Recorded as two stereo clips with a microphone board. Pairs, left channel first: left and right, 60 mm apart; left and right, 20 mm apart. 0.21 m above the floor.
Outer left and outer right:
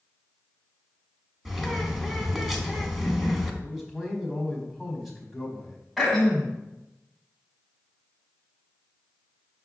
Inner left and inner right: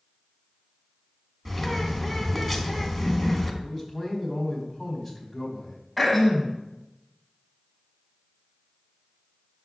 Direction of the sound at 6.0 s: 5° right (ahead or behind).